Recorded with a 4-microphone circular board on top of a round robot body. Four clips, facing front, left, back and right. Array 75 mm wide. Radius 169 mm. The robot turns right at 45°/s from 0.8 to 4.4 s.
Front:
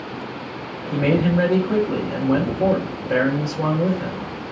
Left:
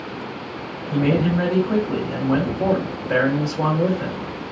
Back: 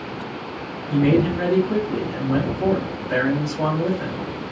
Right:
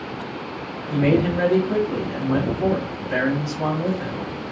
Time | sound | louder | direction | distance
0.9 | a man speaking | even, back 1 dB | 10° right | 2.0 m